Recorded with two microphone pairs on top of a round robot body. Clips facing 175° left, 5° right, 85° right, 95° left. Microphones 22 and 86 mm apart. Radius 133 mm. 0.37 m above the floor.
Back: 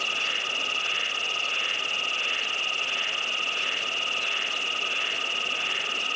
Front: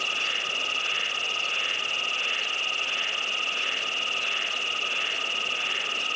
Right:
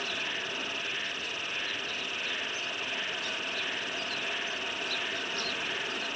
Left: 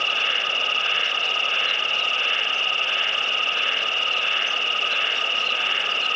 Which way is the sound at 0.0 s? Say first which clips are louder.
Even, left 9 dB; 85° left.